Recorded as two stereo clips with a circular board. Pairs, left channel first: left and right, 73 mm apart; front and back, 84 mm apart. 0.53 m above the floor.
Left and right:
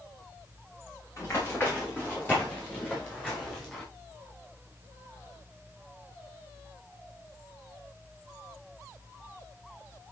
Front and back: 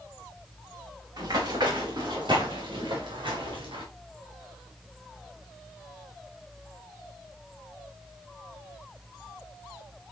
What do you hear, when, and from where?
1.2 s running footsteps: 145° left, 5 m; by 3.8 s 170° left, 5.5 m